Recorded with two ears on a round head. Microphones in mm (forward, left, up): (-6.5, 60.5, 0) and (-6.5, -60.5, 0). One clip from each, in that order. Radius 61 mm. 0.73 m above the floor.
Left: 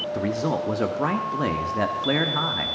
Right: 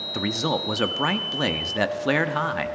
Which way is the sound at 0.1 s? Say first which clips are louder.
Right 2 dB; 60° right (ahead or behind).